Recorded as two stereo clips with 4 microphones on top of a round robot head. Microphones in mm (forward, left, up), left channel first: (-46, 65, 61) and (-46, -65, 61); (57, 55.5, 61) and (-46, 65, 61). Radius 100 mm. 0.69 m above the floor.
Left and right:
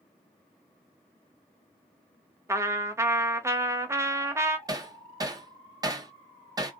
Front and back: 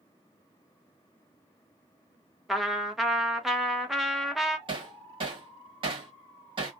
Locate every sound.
2.5 s a trumpet: 100° right, 0.8 m
4.7 s hammering: 150° right, 1.1 m